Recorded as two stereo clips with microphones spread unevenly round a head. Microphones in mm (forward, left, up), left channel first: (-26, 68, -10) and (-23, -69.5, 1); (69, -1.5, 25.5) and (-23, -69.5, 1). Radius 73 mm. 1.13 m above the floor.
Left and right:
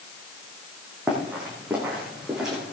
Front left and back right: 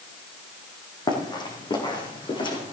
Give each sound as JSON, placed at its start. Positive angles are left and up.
{"t": 1.1, "sound": "running footsteps", "azimuth_deg": -10, "distance_m": 4.0}